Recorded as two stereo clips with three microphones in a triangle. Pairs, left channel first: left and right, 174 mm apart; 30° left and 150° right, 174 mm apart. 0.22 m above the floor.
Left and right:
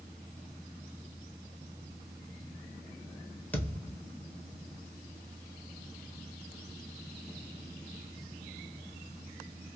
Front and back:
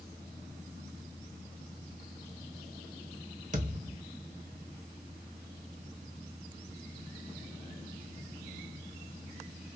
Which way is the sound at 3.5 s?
170° left.